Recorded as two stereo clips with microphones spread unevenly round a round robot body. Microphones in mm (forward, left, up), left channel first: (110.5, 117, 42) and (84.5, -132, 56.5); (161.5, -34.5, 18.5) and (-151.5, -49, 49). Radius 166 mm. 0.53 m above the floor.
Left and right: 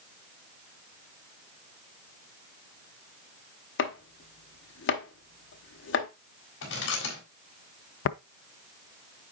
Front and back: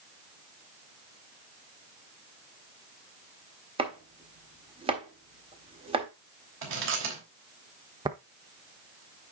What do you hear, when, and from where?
3.8 s chopping: 110° left, 1.5 m
6.6 s chewing: 130° left, 3.5 m
8.1 s tapping: 105° left, 0.5 m